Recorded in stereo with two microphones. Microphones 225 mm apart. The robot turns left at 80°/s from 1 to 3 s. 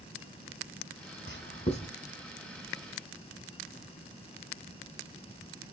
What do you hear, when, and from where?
1.3 s writing: 60° left (ahead or behind), 2 m; by 1.9 s 15° left (ahead or behind), 2 m